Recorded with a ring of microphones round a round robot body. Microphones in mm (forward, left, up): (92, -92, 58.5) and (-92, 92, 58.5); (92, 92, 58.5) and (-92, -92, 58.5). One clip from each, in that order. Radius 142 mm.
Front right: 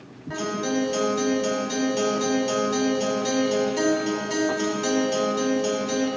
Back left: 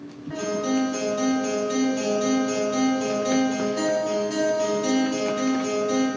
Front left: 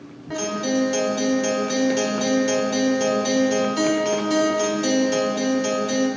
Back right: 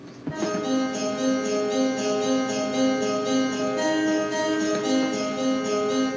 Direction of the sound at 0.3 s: 20° left.